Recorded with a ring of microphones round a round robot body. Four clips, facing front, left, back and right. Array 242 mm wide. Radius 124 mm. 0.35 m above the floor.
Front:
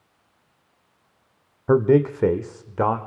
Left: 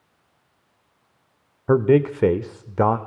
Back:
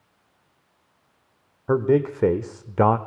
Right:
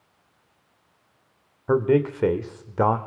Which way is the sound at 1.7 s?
55° left.